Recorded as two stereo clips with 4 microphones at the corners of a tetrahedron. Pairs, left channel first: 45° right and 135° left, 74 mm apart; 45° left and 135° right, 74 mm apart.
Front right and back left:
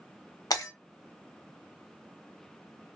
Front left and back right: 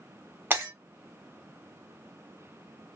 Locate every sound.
0.5 s breaking glass: 75° right, 1.1 m